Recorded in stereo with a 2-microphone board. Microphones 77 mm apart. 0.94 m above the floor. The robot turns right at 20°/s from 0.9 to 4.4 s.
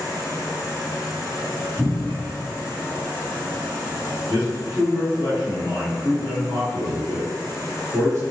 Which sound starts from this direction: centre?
A cupboard door, at 1.8 s.